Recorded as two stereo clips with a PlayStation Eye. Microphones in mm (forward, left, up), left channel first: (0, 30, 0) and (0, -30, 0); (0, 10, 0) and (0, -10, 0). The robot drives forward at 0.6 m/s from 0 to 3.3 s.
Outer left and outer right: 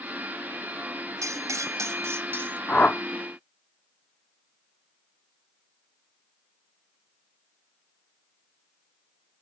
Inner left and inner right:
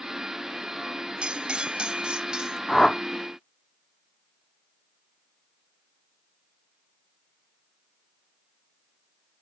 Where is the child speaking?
I don't hear a child speaking.